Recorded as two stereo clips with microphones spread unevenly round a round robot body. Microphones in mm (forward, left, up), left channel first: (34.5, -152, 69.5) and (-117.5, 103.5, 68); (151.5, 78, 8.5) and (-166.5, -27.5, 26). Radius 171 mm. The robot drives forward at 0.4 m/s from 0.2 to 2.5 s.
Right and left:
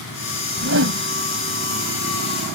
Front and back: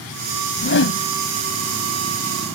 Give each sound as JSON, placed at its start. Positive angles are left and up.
{"t": 0.6, "sound": "a whoosh", "azimuth_deg": 70}